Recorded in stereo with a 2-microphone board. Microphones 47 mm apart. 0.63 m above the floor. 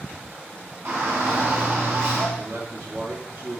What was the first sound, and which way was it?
A shout, 65° right (ahead or behind).